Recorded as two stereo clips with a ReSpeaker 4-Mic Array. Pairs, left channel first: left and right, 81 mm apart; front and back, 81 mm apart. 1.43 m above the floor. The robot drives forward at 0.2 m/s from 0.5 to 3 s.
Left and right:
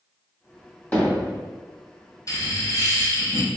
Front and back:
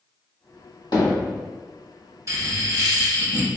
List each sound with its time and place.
0.9 s hammering: 30° left, 1.8 m
2.3 s laughter: 135° left, 1.0 m; by 3.5 s 140° left, 1.1 m